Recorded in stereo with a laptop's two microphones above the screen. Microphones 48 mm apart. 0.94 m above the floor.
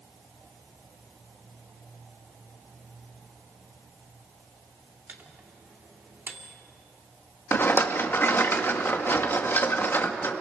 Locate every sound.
5.1 s a microwave: 40° right (ahead or behind), 2.5 m
7.5 s a rattle: 50° left (ahead or behind), 1.7 m